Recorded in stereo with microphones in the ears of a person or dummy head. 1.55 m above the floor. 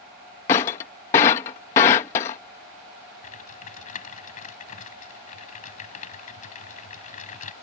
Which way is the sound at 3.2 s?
35° left (ahead or behind).